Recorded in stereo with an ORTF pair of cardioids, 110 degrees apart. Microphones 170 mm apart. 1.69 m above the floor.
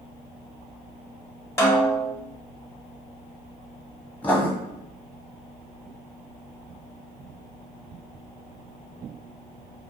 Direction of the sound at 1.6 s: 15° left.